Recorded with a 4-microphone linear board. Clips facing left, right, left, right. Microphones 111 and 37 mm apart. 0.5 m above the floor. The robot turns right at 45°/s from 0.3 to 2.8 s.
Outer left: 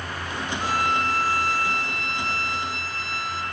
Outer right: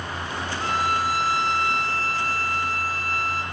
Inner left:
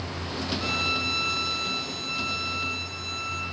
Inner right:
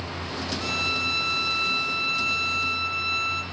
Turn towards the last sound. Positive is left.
turn(degrees=-90)